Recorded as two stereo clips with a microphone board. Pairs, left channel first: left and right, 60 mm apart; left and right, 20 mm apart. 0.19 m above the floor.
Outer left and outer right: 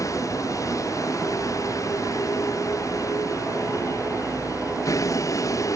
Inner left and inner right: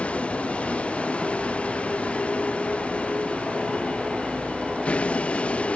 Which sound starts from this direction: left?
A vehicle, at 0.0 s.